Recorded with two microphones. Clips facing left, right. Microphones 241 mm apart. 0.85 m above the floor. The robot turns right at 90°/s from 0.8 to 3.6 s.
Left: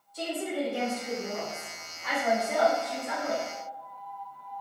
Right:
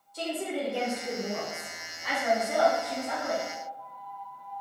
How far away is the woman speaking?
About 1.2 m.